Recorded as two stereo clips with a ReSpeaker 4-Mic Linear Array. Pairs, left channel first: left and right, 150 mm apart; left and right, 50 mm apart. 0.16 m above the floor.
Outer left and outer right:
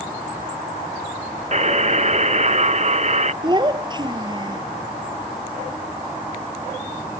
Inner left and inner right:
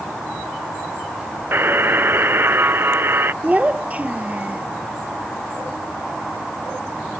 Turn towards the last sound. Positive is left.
turn(degrees=-30)  # may be behind; listen again after turning